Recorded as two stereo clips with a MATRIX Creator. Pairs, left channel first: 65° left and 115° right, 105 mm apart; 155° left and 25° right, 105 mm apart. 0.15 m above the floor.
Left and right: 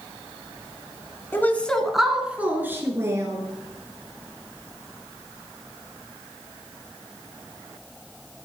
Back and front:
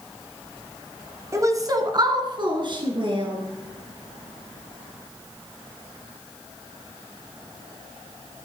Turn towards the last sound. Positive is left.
turn(degrees=-55)